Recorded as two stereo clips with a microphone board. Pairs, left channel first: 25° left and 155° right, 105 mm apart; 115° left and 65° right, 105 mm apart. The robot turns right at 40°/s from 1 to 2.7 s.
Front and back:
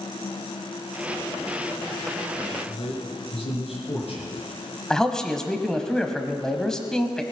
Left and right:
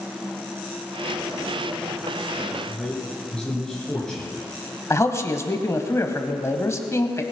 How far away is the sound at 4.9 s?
About 1.2 m.